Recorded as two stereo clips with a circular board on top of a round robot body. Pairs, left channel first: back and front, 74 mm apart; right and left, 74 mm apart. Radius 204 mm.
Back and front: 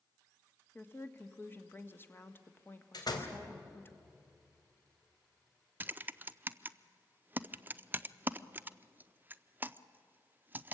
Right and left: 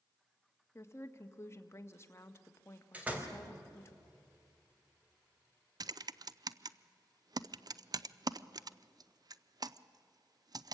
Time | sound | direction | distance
0.8 | a woman speaking | 130° right | 1.7 m
2.9 | a door slam | 160° left | 3 m
5.8 | typing on a keyboard | 65° left | 0.7 m